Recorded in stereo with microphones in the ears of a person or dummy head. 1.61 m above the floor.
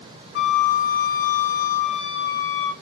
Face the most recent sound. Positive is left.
turn(degrees=65)  # may be behind; listen again after turning